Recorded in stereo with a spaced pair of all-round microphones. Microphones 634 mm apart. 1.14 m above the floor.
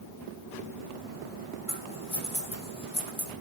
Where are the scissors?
55° left (ahead or behind), 6 m.